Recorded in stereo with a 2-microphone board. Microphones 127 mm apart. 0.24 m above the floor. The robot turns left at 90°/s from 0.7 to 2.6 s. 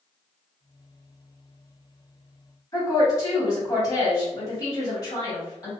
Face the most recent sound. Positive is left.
turn(degrees=30)  # may be behind; listen again after turning